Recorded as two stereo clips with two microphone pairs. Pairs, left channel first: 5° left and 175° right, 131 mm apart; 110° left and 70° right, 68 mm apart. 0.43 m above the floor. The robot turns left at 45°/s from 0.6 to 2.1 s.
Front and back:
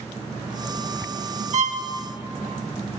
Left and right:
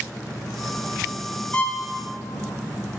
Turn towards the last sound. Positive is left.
turn(degrees=155)